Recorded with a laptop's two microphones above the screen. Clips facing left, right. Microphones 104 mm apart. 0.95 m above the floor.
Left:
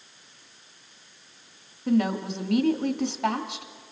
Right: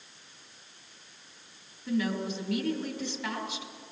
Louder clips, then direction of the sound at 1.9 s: Left 6 dB; 65° left (ahead or behind).